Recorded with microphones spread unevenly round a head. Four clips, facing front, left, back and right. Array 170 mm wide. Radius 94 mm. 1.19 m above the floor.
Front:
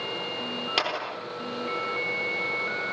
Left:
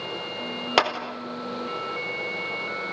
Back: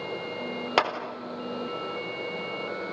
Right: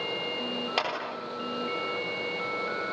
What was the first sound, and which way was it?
A clap, 105° left.